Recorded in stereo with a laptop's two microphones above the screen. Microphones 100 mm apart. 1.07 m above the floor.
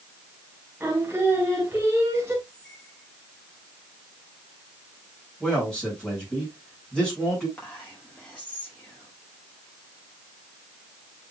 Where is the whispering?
15° left (ahead or behind), 5 m.